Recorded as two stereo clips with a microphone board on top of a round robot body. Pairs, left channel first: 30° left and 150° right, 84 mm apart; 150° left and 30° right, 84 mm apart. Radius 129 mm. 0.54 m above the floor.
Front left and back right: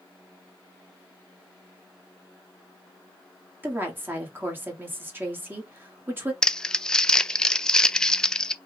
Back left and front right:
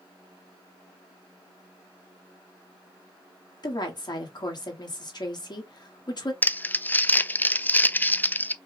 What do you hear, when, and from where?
3.6 s a woman speaking: 145° left, 1.9 m
6.4 s crumpling: 100° left, 0.5 m